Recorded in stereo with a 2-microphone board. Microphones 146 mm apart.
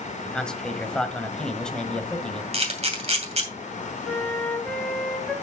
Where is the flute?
15° left (ahead or behind), 2.5 m.